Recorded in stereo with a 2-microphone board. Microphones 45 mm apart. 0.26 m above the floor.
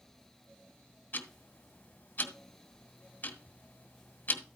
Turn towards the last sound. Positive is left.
turn(degrees=40)  # may be behind; listen again after turning